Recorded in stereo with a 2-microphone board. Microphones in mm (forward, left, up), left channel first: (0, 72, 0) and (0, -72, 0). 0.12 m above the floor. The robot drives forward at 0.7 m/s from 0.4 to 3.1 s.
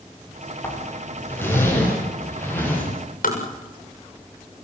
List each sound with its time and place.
0.6 s a zipper: 15° left (ahead or behind), 9 m
3.2 s tapping: 65° left (ahead or behind), 7.5 m